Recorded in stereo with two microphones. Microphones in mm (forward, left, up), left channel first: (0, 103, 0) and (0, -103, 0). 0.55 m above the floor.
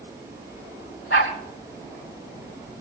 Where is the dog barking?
90° left, 9.5 m.